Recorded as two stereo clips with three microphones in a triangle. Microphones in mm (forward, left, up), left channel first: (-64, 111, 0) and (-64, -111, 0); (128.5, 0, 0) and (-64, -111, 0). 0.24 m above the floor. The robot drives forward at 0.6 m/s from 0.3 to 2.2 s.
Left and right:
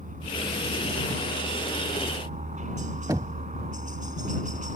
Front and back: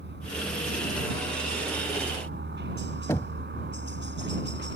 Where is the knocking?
35° right.